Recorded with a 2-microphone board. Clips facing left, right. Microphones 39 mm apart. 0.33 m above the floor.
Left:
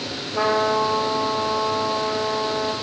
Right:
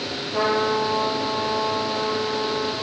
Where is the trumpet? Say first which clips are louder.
Left 2 dB; 25° right (ahead or behind), 5.5 m.